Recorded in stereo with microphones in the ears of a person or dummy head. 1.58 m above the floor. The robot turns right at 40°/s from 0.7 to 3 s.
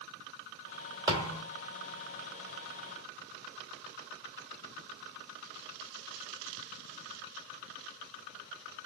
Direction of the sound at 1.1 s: 20° right (ahead or behind).